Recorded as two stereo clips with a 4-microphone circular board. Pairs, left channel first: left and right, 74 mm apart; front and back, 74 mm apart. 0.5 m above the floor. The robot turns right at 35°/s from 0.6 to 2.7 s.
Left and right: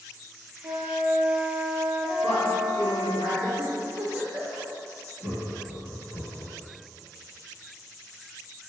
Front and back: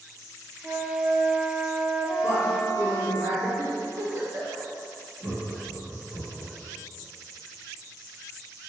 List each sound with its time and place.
0.6 s a flute: 105° right, 0.5 m; by 3.2 s 30° right, 0.5 m
2.2 s a woman speaking: 35° right, 1.5 m; by 3.5 s 20° right, 1.5 m
3.6 s a giggle: 155° right, 0.7 m
5.2 s laughter: 125° right, 1.7 m